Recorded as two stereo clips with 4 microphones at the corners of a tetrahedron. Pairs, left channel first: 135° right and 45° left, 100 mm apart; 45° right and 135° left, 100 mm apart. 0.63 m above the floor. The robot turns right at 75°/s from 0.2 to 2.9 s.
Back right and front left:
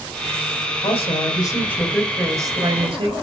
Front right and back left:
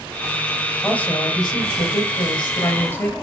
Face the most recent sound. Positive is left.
turn(degrees=25)